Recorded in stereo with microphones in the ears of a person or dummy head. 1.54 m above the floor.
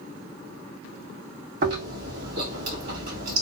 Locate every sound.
1.6 s chewing: 60° right (ahead or behind), 2 m